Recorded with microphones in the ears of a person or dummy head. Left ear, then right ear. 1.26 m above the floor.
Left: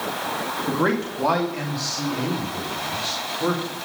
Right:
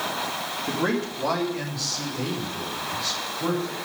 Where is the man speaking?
30° left (ahead or behind), 2.5 m; by 3.7 s 5° left (ahead or behind), 5 m.